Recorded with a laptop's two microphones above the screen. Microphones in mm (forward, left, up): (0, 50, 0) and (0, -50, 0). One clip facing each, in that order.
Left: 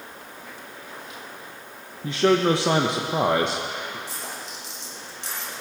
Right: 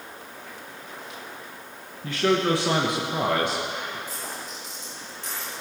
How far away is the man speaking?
About 1.0 m.